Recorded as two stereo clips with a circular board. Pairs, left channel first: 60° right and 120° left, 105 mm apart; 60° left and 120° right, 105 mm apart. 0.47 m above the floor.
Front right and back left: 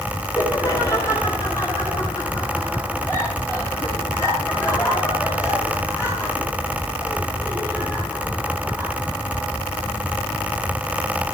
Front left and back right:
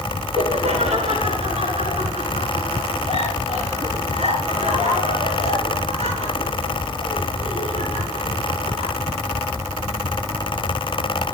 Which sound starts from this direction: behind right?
Laughter, at 0.3 s.